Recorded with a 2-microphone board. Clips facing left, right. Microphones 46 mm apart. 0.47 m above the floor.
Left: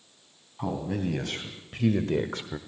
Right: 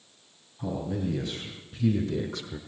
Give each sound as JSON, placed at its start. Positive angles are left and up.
{"t": 0.6, "sound": "a man speaking", "side_deg": 65, "distance_m": 3.0}